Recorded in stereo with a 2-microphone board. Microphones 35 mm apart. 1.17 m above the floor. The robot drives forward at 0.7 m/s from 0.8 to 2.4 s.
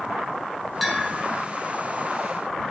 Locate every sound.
0.8 s a bell: centre (ahead or behind), 3.5 m